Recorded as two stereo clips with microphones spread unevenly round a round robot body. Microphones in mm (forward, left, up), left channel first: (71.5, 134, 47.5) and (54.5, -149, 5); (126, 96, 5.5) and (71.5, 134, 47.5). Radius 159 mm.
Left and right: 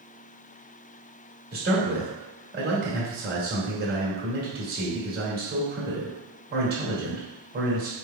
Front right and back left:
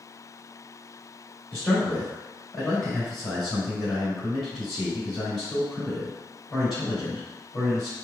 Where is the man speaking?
75° right, 1.8 m.